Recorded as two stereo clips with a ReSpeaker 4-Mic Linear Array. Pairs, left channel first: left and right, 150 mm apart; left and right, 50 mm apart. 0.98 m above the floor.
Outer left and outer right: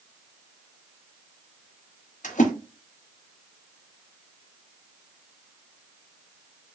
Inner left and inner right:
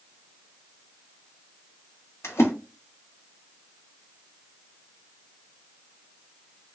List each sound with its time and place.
2.2 s a splash: 60° left (ahead or behind), 1.0 m